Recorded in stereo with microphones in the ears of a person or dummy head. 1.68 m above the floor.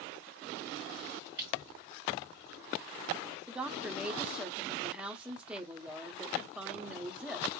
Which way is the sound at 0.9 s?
50° right (ahead or behind).